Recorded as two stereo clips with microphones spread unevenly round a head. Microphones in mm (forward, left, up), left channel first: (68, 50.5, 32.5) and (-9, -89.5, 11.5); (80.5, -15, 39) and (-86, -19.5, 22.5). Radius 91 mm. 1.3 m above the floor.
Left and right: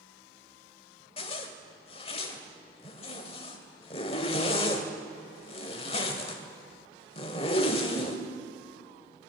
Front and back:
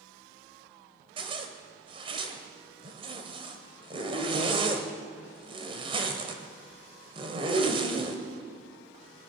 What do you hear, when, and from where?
1.2 s a zipper: 115° left, 2 m